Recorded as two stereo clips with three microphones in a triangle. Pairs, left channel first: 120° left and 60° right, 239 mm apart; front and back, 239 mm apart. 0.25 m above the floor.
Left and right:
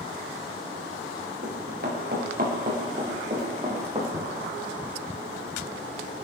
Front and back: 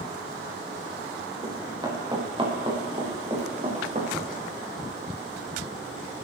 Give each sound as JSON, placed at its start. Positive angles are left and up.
{"t": 1.4, "sound": "running footsteps", "azimuth_deg": -105, "distance_m": 4.5}
{"t": 4.1, "sound": "knocking", "azimuth_deg": -100, "distance_m": 1.8}